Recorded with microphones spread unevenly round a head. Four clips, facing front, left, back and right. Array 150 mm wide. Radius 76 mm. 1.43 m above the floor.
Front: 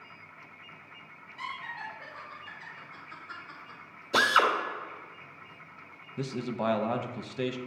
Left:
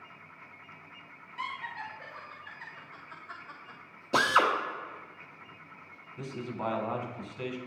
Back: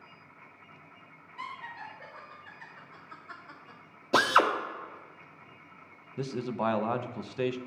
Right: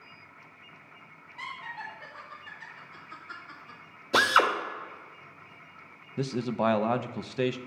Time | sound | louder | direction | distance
1.4 | laughter | left 2 dB, front 2 dB | 95° left | 2 m
4.1 | a drill | right 2 dB, back 1 dB | 155° left | 1.2 m
6.2 | a man speaking | right 8 dB, back 1 dB | 95° right | 0.6 m